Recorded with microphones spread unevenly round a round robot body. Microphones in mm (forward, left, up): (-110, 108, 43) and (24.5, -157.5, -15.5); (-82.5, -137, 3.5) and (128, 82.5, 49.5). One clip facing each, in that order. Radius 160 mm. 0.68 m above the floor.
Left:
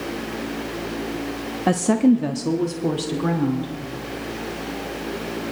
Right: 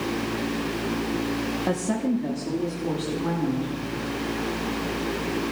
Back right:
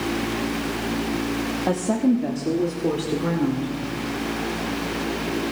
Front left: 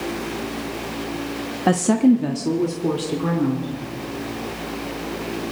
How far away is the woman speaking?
About 0.9 m.